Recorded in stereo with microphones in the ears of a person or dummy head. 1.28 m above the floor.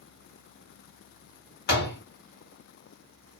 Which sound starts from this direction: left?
A door slam, at 1.7 s.